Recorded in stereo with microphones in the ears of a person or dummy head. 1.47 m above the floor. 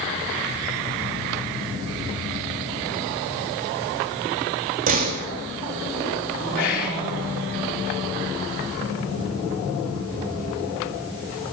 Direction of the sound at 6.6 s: 55° left (ahead or behind).